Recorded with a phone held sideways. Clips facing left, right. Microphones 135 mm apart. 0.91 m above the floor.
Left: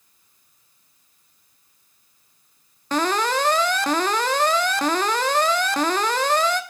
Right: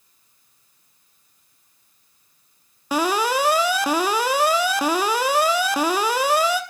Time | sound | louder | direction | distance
2.9 | an alarm | right 1 dB | 10° right (ahead or behind) | 1.1 m